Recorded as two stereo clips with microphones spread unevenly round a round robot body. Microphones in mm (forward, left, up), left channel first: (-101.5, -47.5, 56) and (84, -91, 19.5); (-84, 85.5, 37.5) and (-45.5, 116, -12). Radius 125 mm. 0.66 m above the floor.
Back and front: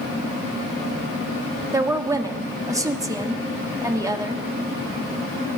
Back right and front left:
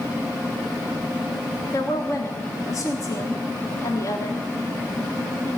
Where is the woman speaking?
50° right, 1.2 m.